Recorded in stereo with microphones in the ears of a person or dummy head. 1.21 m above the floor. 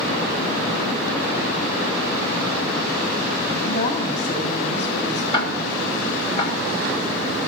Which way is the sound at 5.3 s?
30° left (ahead or behind).